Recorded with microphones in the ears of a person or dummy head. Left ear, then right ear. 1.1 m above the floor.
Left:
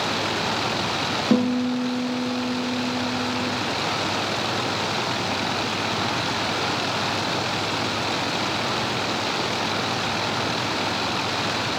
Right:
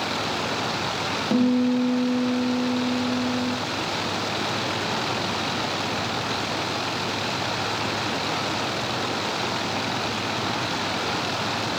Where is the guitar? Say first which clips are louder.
Even; 75° left (ahead or behind), 0.5 m.